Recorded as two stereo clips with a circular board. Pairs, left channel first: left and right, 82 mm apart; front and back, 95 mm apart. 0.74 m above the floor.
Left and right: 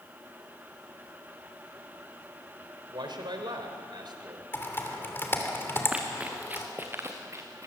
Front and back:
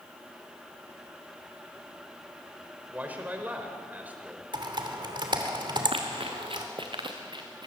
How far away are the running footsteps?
About 3 m.